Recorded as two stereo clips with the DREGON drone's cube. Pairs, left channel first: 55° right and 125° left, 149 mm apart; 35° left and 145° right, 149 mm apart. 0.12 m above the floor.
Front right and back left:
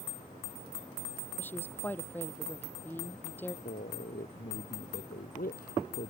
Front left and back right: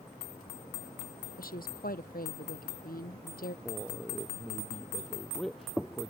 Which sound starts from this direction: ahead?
A woman speaking, at 1.4 s.